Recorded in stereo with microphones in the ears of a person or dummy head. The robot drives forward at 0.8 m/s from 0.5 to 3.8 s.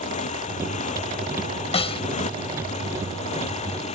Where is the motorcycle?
40° left (ahead or behind).